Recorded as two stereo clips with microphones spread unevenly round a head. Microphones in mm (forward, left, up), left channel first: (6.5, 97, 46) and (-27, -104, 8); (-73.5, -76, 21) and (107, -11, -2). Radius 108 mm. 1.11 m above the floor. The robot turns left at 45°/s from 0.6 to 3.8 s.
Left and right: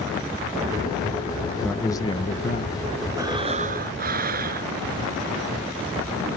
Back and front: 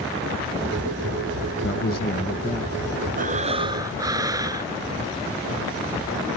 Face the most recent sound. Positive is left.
turn(degrees=-50)